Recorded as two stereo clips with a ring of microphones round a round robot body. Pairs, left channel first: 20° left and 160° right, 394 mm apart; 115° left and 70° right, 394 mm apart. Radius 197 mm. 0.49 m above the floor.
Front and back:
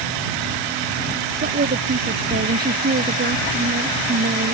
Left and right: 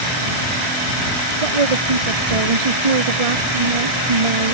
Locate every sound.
1.4 s a woman speaking: 90° right